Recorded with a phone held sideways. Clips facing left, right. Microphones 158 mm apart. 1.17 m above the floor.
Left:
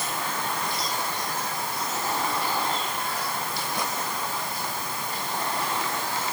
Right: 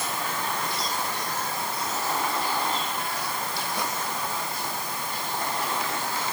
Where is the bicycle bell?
No bicycle bell in this recording.